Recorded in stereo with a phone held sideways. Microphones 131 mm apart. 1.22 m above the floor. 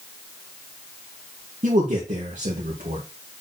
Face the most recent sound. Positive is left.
turn(degrees=-75)  # may be behind; listen again after turning